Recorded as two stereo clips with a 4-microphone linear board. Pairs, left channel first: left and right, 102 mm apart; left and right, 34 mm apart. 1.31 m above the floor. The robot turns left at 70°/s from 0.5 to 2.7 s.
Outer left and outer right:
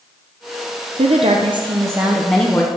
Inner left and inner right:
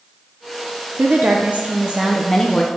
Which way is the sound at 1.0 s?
90° right.